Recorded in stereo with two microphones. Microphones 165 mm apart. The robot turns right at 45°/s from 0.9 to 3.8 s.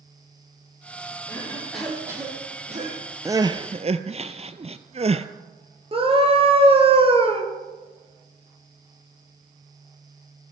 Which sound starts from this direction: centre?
Crying, at 3.2 s.